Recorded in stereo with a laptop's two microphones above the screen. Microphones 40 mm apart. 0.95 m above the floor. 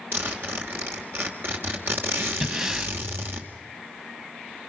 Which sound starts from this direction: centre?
Breathing, at 2.4 s.